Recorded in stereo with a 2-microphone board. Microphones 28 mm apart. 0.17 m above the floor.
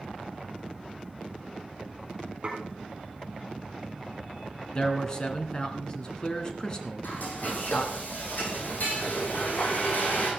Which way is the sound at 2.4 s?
35° right (ahead or behind).